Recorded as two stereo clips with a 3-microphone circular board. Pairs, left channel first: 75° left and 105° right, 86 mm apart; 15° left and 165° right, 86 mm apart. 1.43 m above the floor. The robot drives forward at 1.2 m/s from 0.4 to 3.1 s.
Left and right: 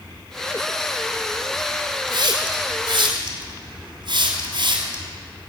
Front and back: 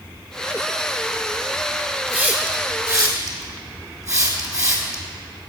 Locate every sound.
2.1 s a hiss: 90° right, 3 m; by 5.0 s 115° right, 3 m